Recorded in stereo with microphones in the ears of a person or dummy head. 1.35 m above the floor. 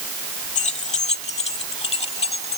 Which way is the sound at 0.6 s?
40° left (ahead or behind).